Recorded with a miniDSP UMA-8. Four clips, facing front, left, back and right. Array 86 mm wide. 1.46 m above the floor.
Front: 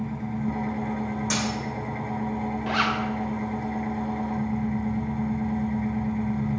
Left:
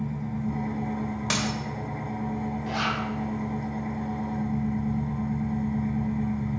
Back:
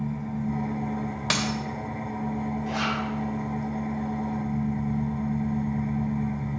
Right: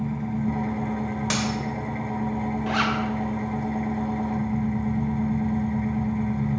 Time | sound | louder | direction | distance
0.0 | an engine running | right 4 dB, front 1 dB | 55° right | 1.0 m
1.3 | a dropped coin | right 2 dB, back 2 dB | straight behind | 1.4 m
2.7 | a zipper | right 5 dB, front 5 dB | 45° right | 1.0 m